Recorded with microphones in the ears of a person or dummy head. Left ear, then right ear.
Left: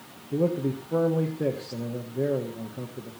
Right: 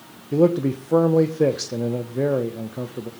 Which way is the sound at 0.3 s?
80° right.